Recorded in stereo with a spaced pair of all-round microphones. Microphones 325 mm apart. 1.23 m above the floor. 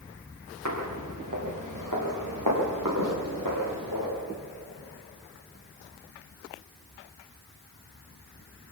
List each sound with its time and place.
0.7 s footsteps: 60° right (ahead or behind), 7 m; by 4.1 s 80° right, 9 m